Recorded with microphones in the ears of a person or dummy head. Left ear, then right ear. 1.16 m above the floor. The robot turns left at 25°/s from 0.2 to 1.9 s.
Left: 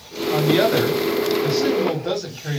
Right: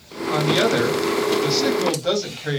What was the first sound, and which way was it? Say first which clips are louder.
A woman speaking: left 1 dB; 10° left.